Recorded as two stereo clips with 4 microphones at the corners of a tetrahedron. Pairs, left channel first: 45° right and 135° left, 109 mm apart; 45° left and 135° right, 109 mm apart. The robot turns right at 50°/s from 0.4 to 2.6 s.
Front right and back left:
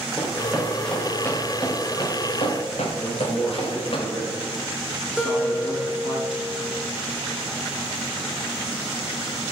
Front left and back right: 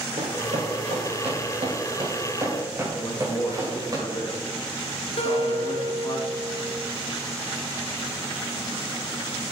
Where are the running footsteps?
145° right, 3.5 m; by 4.0 s 80° right, 3.5 m.